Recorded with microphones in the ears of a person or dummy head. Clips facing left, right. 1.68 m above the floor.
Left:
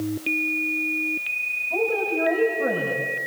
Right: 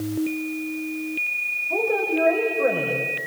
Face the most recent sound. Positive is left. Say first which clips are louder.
# right 1 dB
turn(degrees=-80)